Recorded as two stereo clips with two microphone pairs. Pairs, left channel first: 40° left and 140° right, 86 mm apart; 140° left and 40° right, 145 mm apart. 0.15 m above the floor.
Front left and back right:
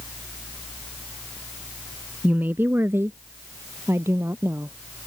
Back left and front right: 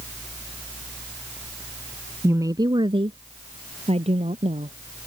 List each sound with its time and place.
2.2 s a woman speaking: 95° right; by 4.8 s 80° right